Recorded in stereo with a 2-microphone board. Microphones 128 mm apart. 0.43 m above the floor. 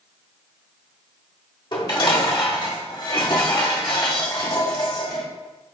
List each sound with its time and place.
1.7 s dishes clattering: 40° left (ahead or behind), 0.9 m